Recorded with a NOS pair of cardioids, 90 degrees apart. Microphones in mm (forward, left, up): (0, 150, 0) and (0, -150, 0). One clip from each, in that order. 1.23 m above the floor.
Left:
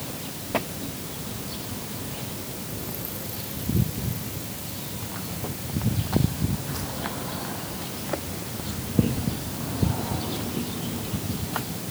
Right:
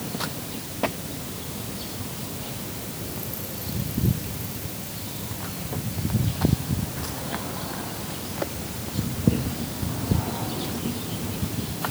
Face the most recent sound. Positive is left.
No sound to turn to.